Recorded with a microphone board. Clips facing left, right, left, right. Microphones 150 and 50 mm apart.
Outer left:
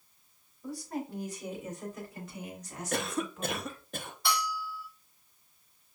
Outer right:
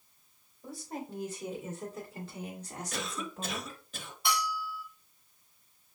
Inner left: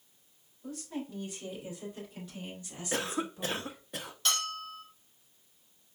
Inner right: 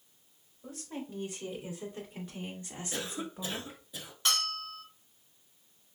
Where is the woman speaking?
25° right (ahead or behind), 3.5 m; by 3.8 s 45° right (ahead or behind), 1.0 m.